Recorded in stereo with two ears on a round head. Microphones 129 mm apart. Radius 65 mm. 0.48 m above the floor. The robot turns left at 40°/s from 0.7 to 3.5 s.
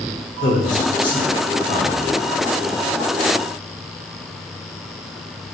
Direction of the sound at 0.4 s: 115° left.